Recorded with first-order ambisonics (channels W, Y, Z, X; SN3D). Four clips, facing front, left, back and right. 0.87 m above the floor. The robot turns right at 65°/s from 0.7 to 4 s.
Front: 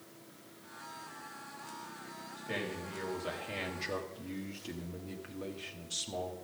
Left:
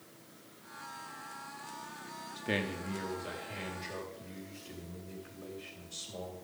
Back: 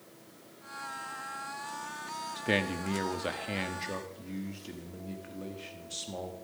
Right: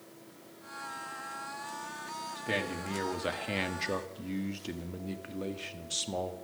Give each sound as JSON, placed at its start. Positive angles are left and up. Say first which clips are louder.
{"t": 2.4, "sound": "a man speaking", "louder": "even, back 8 dB", "azimuth_deg": 165, "distance_m": 1.4}